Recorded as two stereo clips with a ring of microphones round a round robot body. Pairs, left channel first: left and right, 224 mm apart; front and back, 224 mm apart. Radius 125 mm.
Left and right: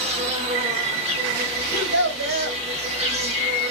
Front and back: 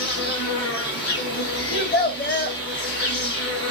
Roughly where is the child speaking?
Ahead right.